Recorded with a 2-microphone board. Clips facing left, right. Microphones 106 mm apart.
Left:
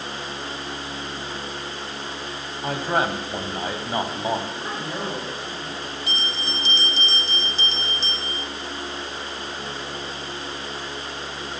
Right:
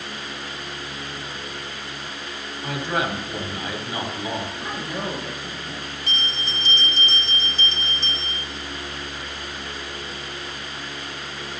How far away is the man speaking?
About 1.8 m.